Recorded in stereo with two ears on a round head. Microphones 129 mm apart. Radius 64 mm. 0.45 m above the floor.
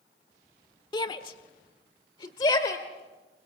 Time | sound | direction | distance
0.9 | a shout | 30° left (ahead or behind) | 1.4 m